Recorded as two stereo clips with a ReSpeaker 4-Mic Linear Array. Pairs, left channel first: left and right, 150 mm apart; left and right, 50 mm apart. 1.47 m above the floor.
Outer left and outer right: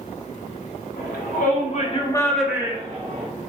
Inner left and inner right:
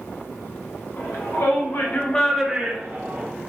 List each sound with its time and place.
1.0 s a shout: 75° left (ahead or behind), 1.8 m; by 3.3 s 45° right (ahead or behind), 1.5 m